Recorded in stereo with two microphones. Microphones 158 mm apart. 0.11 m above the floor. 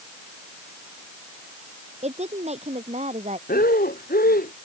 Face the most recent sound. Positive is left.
turn(degrees=70)  # may be behind; listen again after turning